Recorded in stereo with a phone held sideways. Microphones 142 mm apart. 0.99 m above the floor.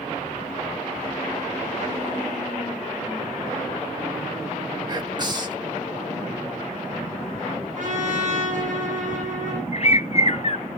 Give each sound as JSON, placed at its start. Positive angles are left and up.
{"t": 4.9, "sound": "whispering", "side_deg": -30, "distance_m": 1.7}
{"t": 7.8, "sound": "a trumpet", "side_deg": -60, "distance_m": 9.5}
{"t": 9.7, "sound": "a bird", "side_deg": 45, "distance_m": 0.5}